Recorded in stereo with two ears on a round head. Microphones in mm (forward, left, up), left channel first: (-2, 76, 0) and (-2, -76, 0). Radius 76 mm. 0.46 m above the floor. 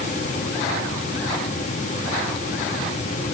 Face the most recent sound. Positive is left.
No sound to turn to.